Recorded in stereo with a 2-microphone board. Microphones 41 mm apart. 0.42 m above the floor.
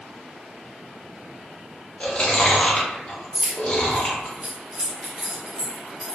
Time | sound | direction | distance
2.0 | chewing | 30° left (ahead or behind) | 0.9 m
3.3 | keys jangling | 35° right (ahead or behind) | 1.0 m